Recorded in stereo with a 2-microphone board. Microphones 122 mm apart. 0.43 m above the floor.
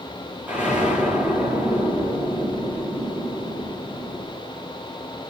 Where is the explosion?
10° right (ahead or behind), 8 m.